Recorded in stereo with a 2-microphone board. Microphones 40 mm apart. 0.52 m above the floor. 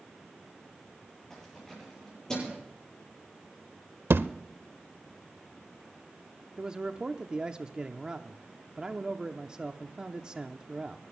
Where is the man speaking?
25° right (ahead or behind), 0.7 m.